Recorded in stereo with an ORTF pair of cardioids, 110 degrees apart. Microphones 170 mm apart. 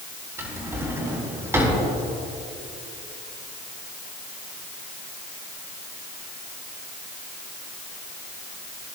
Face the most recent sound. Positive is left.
turn(degrees=-15)